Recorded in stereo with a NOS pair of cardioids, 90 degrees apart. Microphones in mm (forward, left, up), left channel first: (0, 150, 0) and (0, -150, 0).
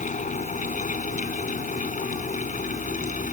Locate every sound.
0.0 s a fan: 25° left